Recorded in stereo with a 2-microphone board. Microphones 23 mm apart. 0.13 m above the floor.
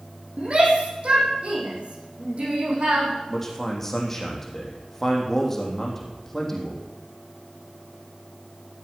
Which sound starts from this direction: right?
A shout, at 0.4 s.